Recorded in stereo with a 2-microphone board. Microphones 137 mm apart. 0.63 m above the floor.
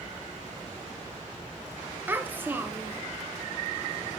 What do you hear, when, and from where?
2.1 s a child speaking: 15° right (ahead or behind), 0.6 m